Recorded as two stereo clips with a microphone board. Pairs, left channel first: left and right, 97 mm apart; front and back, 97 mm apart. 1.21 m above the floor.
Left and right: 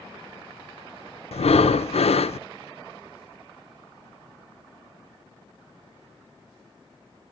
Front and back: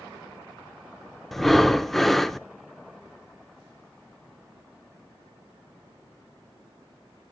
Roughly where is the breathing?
Left.